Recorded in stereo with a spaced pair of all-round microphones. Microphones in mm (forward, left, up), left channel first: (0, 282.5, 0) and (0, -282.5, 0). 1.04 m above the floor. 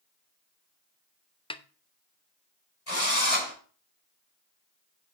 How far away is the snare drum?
About 0.5 m.